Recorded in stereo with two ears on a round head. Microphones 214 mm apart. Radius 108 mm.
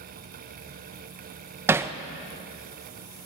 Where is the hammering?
10° right (ahead or behind), 0.5 m.